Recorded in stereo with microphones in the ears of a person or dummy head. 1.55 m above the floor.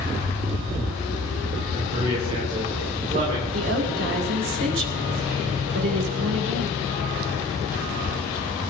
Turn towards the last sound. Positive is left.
turn(degrees=-90)